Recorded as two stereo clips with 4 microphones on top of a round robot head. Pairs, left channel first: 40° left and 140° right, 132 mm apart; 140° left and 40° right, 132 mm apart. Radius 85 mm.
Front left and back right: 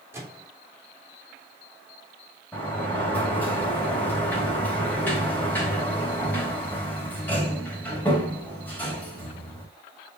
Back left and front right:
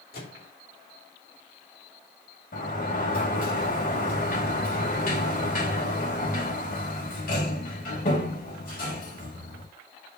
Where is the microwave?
145° left, 3 m.